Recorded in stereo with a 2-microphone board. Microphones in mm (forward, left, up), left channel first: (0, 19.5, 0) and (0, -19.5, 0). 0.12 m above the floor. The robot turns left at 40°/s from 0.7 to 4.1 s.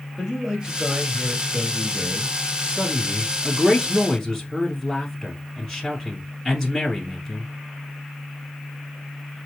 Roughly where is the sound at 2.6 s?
Right.